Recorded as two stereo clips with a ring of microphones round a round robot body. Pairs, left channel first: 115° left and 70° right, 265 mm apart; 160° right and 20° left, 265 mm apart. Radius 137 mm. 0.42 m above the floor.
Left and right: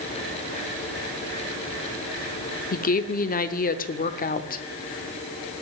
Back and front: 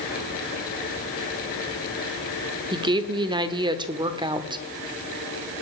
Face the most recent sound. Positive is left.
turn(degrees=85)